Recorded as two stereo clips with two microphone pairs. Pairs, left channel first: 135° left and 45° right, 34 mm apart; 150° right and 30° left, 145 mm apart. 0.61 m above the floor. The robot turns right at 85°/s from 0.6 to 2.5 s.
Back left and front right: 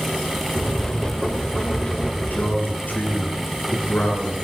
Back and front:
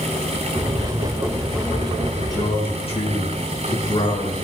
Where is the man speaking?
135° left, 7 m; by 4.3 s 160° left, 7 m.